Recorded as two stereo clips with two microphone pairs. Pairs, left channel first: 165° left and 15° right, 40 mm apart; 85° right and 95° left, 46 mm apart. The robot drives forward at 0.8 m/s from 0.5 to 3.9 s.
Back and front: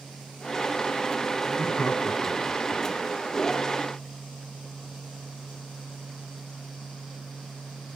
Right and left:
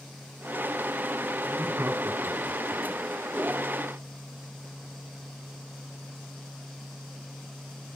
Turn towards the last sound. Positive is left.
turn(degrees=150)